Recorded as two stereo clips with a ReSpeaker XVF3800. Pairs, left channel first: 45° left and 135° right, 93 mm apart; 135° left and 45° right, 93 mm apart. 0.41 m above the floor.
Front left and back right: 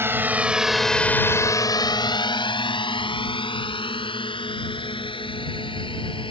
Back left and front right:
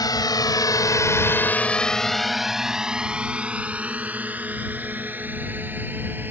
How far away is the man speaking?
I don't hear a man speaking.